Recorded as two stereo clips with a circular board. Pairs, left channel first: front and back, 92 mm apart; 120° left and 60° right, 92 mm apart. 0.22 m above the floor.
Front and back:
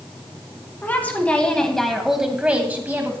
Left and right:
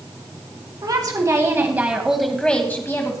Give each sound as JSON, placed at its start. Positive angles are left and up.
{"t": 0.8, "sound": "a woman speaking", "azimuth_deg": -60, "distance_m": 2.0}